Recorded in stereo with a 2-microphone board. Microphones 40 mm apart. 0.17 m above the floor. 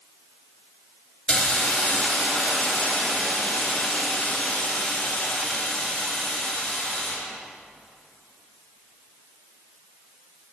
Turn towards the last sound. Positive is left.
turn(degrees=20)  # may be behind; listen again after turning